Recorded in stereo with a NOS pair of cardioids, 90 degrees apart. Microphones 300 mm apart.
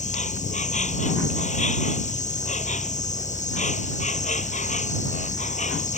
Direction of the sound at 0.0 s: 25° left.